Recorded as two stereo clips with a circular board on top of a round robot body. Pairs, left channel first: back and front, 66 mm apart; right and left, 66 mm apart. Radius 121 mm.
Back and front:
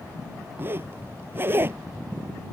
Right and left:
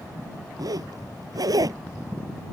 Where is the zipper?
60° left.